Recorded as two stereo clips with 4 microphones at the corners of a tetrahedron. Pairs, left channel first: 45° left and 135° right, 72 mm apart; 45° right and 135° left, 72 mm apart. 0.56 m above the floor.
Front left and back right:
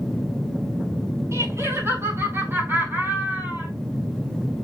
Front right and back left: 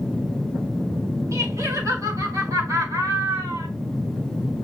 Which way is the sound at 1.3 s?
Straight behind.